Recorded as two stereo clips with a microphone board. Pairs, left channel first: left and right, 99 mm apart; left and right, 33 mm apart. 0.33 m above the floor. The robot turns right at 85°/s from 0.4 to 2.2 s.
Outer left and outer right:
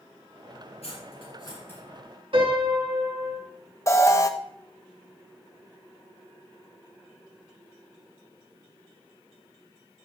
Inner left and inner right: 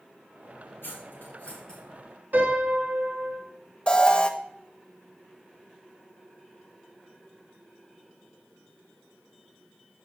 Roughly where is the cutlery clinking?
Left.